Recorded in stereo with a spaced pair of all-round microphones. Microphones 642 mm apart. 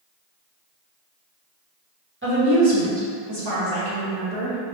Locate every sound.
2.2 s a woman speaking: 20° right (ahead or behind), 1.5 m; by 4.6 s 60° right (ahead or behind), 1.4 m